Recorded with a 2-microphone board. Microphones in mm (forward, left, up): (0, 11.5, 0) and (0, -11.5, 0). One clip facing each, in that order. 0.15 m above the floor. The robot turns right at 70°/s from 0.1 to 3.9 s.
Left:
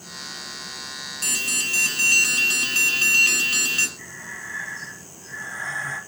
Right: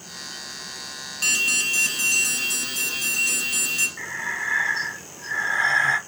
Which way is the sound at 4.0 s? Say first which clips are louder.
Right 8 dB; 55° right (ahead or behind).